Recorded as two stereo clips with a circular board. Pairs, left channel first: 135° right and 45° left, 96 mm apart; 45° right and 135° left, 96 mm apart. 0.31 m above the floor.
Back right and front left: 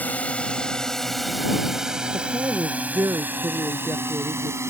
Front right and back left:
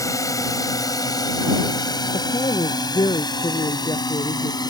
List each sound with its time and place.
0.0 s a drone: 70° right; by 4.7 s 10° right
2.1 s a woman speaking: 15° right